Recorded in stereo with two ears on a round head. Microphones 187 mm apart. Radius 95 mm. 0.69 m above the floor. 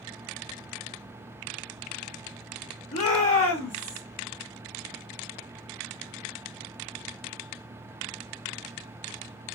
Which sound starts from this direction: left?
A shout, at 2.9 s.